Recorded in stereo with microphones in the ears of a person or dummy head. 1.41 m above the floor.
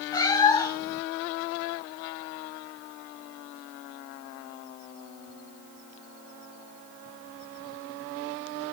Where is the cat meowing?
15° left (ahead or behind), 1.5 m.